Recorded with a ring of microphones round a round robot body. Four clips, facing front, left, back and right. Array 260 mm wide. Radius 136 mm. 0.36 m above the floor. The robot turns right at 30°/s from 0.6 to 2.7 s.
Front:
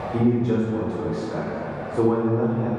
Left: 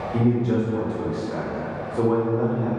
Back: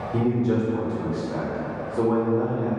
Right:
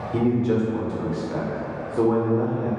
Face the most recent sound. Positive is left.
turn(degrees=-35)